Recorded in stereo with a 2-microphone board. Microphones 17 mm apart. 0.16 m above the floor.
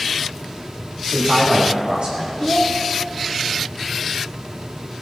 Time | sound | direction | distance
1.1 | a man speaking | 75° right (ahead or behind) | 7 m
2.4 | a child speaking | 40° left (ahead or behind) | 2 m